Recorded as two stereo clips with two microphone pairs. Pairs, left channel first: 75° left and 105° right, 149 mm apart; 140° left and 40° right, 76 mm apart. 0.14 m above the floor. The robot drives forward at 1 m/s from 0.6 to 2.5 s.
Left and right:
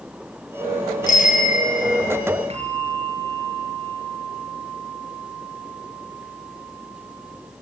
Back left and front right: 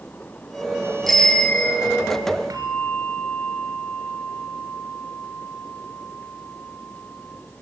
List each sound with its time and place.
1.1 s a bicycle bell: 55° left, 2 m; by 2.2 s 95° left, 1.8 m
2.5 s a bell: 65° right, 1.4 m